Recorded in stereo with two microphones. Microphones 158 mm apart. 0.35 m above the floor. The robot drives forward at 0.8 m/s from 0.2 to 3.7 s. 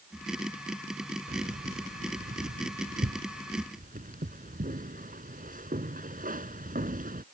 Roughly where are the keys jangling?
Right.